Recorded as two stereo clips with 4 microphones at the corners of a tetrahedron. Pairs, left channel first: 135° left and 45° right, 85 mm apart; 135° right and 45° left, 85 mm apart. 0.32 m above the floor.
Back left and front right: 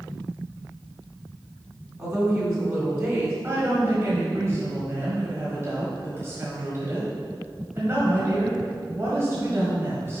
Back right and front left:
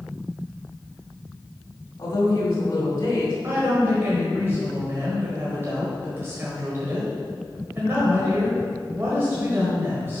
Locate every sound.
2.0 s a woman speaking: 90° right, 1.8 m
3.4 s a woman speaking: 5° right, 1.4 m